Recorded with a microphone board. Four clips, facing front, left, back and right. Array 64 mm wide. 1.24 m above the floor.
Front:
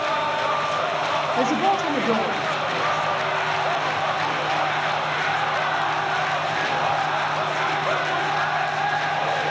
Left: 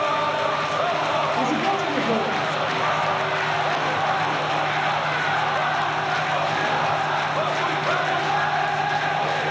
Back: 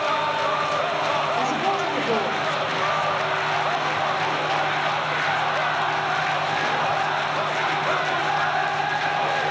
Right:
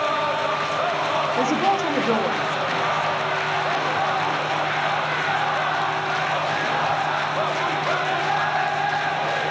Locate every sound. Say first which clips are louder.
1.4 s a woman speaking: right 2 dB, front 2 dB; 35° right, 1.9 m; by 3.2 s 70° right, 2 m